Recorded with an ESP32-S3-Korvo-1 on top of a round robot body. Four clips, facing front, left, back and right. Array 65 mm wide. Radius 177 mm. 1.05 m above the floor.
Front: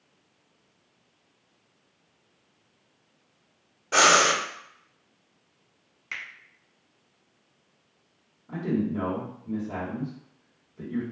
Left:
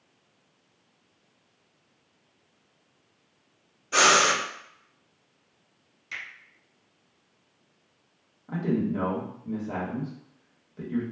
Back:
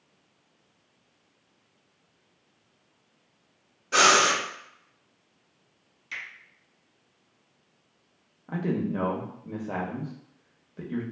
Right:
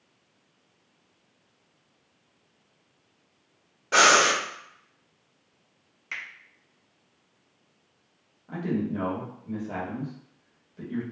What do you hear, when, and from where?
3.9 s breathing: 70° right, 1.4 m
6.1 s a finger snap: 40° right, 1.1 m
8.5 s a man speaking: 170° left, 0.9 m